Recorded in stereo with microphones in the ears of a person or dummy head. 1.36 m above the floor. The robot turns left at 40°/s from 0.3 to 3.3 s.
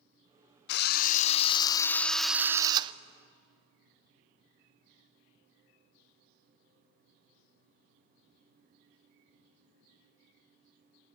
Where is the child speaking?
I don't hear a child speaking.